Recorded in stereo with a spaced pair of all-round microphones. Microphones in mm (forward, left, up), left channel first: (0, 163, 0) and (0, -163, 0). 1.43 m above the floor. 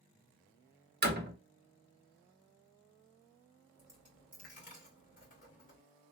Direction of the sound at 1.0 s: 30° right (ahead or behind).